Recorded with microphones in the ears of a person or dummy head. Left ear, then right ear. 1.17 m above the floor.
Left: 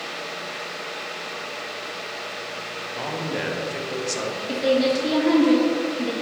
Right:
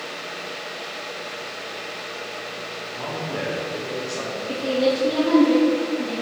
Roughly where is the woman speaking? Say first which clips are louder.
Left 1 dB; left.